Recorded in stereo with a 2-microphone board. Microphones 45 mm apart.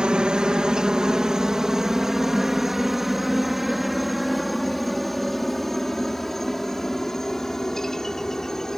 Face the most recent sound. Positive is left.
turn(degrees=10)  # may be behind; listen again after turning